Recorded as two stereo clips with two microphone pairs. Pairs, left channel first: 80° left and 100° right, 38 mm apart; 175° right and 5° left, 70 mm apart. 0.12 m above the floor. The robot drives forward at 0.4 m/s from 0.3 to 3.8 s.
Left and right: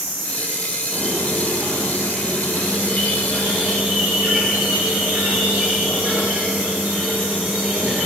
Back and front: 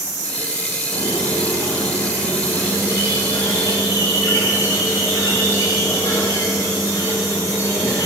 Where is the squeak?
165° right, 1.4 m; by 8.1 s 170° right, 2.5 m.